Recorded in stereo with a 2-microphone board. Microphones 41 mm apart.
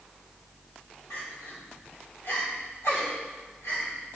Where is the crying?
80° left, 2.5 m.